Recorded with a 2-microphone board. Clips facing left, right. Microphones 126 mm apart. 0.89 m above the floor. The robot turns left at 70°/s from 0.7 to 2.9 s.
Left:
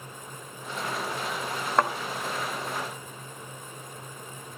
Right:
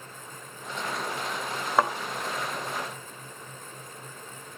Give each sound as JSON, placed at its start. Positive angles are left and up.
{"t": 1.8, "sound": "a thud", "side_deg": -5, "distance_m": 1.2}